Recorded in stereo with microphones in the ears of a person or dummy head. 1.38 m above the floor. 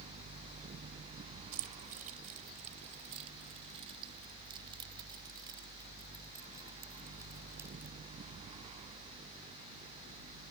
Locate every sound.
1.5 s keys jangling: 50° right (ahead or behind); by 8.0 s 15° right (ahead or behind)